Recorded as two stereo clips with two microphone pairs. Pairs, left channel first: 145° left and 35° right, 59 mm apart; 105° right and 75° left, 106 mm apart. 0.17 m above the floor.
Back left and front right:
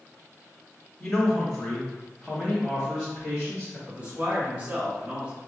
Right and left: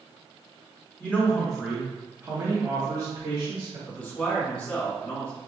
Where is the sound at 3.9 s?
40° right, 1.5 m.